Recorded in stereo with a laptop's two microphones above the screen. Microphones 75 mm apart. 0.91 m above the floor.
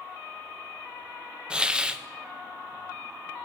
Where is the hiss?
10° right (ahead or behind), 0.5 m.